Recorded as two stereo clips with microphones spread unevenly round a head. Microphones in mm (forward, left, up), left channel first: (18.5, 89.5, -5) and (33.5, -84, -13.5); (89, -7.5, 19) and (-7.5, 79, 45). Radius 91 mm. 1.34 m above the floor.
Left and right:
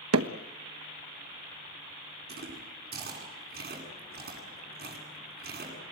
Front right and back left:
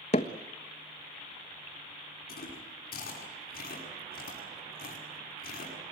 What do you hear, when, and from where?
0.1 s hammering: 95° right, 1.3 m
2.3 s chewing: 50° right, 9 m